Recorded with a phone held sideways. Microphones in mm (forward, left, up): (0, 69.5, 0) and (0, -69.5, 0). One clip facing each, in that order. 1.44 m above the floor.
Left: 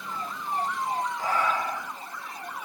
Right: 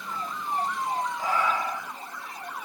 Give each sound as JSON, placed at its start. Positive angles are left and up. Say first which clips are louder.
{"t": 1.2, "sound": "breathing", "louder": "even", "side_deg": -15, "distance_m": 0.9}